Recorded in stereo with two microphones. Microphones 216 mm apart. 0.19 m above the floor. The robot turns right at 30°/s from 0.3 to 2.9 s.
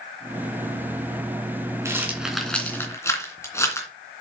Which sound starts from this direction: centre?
A rattle, at 1.9 s.